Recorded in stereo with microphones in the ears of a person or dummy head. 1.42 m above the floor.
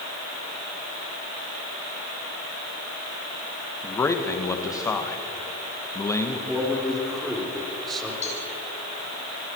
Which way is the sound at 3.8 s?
5° left (ahead or behind).